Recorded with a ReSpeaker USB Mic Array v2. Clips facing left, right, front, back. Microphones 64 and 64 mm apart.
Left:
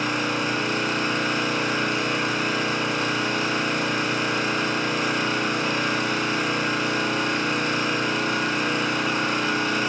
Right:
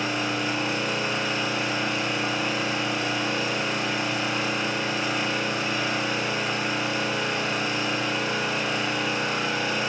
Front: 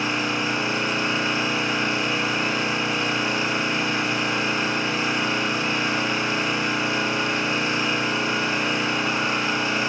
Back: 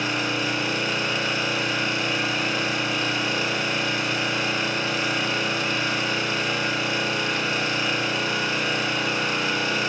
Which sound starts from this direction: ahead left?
An engine running, at 0.0 s.